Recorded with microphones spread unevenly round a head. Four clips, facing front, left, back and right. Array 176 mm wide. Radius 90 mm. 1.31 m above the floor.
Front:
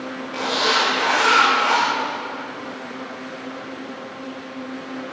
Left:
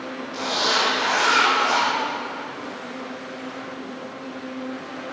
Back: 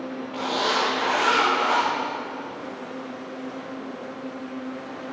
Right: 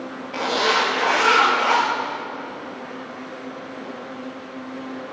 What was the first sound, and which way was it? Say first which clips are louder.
A zipper: right 4 dB, front 3 dB; 70° right.